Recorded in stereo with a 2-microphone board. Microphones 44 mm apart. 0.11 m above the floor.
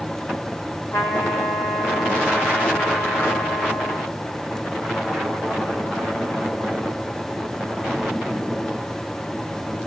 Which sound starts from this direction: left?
A trumpet, at 0.9 s.